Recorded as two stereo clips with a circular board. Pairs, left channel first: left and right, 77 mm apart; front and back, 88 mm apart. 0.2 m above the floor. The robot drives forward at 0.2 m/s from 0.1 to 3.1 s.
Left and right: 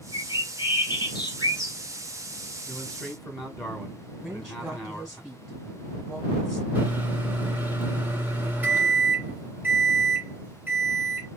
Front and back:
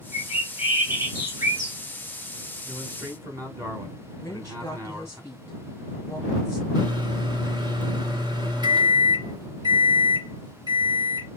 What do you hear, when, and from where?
0.1 s a bird: 110° left, 1.7 m; by 1.8 s 120° left, 1.9 m
2.7 s a man speaking: 170° left, 1.6 m
4.2 s a woman speaking: 20° right, 1.3 m
6.8 s a microwave: 155° right, 1.8 m